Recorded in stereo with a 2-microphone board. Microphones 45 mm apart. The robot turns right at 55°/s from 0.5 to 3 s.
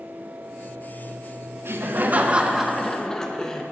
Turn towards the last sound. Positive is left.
turn(degrees=15)